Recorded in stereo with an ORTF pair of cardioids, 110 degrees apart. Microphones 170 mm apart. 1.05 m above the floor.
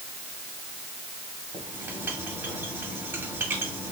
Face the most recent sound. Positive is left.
turn(degrees=-15)